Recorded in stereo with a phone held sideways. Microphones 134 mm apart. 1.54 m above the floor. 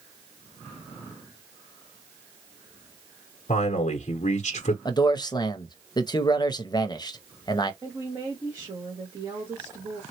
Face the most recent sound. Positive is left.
turn(degrees=-30)  # may be behind; listen again after turning